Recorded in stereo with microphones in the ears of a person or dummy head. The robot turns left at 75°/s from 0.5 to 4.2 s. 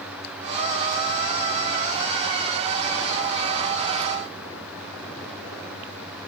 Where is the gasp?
No gasp in this recording.